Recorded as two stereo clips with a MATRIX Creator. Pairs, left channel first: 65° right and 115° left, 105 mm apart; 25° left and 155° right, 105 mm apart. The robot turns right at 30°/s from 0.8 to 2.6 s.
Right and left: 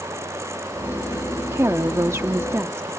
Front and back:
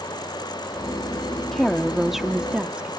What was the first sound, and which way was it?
A woman speaking, 100° left.